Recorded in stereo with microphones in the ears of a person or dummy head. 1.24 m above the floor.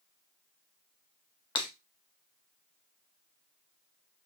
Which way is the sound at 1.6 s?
25° left (ahead or behind).